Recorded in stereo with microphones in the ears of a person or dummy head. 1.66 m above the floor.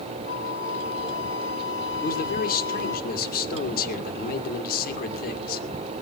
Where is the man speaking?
55° left (ahead or behind), 1.9 m.